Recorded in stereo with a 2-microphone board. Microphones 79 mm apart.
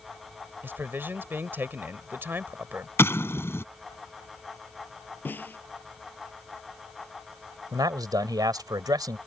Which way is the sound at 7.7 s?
60° right (ahead or behind).